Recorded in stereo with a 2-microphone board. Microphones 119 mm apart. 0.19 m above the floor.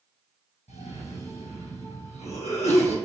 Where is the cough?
65° left (ahead or behind), 4 m.